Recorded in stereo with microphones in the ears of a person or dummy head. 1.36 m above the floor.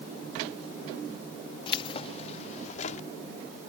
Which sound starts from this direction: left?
Keys jangling, at 1.7 s.